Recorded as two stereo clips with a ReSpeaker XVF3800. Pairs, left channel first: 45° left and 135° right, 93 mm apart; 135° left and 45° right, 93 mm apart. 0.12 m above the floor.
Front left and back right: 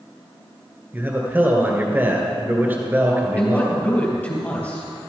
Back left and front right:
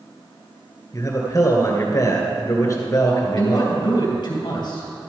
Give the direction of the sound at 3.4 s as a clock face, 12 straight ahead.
8 o'clock.